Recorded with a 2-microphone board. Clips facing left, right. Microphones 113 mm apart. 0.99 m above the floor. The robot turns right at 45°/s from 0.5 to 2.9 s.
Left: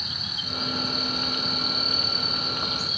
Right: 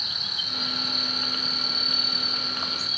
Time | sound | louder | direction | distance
0.0 | an insect | left 2 dB | 85° right | 2.5 m